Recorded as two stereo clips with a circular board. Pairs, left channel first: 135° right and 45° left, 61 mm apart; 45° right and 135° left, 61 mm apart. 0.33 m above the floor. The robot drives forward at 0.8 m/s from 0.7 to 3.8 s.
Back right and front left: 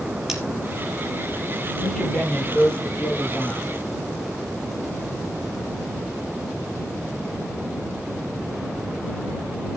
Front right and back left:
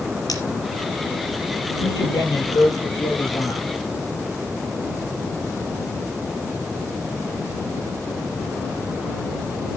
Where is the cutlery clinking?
40° right, 4.5 m.